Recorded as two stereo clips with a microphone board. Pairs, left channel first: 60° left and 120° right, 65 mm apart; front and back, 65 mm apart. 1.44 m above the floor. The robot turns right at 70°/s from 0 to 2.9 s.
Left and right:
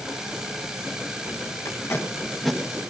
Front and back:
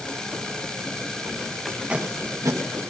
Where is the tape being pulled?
90° left, 1.5 m; by 2.6 s 160° left, 1.5 m.